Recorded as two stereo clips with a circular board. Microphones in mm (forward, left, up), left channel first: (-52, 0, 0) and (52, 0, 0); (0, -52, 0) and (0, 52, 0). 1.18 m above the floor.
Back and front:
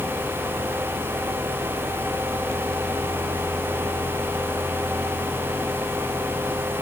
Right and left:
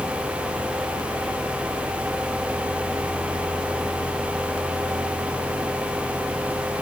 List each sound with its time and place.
Only background noise.